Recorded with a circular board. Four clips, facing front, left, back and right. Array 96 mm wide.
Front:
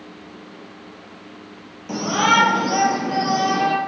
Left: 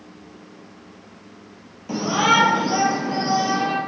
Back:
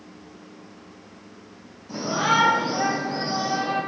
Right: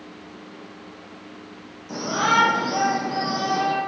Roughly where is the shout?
Ahead left.